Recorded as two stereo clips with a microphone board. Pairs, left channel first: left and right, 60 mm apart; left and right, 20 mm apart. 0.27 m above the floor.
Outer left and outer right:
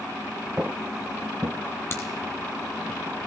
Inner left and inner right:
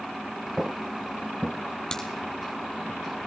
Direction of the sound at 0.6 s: 25° right (ahead or behind).